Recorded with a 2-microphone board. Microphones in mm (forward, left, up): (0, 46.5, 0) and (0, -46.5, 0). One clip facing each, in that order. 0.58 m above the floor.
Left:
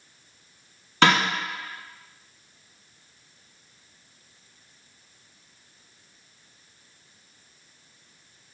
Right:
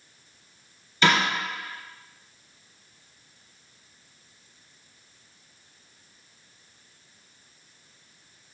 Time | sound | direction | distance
1.0 | a snare drum | 80° left | 1.5 m